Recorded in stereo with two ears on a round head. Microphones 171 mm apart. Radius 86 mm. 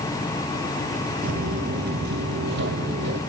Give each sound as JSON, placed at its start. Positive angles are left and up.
{"t": 1.2, "sound": "footsteps", "side_deg": -45, "distance_m": 1.3}